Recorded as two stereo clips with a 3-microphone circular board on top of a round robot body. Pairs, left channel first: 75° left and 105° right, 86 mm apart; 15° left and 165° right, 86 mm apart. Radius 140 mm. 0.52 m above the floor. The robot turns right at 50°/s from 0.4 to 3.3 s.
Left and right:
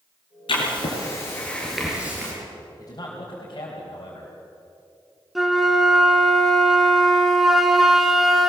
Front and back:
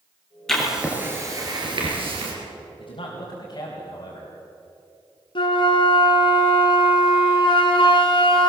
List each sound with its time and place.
0.5 s writing: 100° left, 4.5 m; by 2.3 s 170° right, 4.5 m
2.8 s a man speaking: 20° left, 4.5 m; by 4.4 s 45° left, 4.5 m
5.3 s a flute: 15° right, 1.8 m